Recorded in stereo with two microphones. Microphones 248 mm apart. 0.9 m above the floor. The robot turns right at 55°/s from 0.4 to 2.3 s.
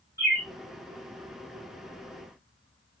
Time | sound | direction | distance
0.2 | a bird | 40° right (ahead or behind) | 1.2 m